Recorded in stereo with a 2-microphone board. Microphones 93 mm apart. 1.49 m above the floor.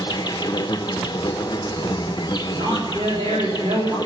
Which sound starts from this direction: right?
A woman speaking, at 2.5 s.